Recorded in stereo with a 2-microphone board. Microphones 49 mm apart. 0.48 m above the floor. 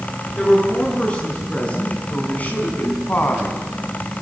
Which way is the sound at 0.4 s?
20° left (ahead or behind).